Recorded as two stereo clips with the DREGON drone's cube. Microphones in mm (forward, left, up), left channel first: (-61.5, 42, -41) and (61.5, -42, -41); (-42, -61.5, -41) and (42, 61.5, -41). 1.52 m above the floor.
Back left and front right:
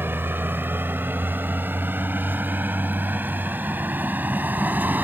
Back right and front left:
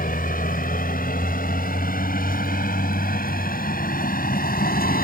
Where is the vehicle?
110° right.